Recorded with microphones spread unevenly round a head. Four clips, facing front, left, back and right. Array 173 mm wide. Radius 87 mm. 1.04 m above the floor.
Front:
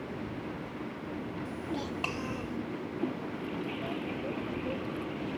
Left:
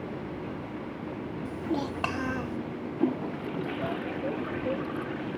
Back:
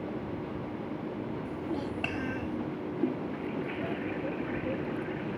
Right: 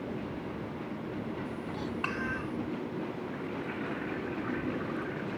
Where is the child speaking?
95° left; by 2.6 s 105° left.